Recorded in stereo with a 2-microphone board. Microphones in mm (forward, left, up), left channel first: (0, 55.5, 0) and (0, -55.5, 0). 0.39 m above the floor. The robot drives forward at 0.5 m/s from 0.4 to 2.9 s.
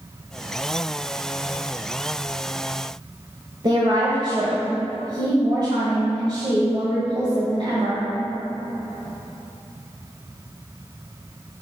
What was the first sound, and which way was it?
A woman speaking, 45° right (ahead or behind).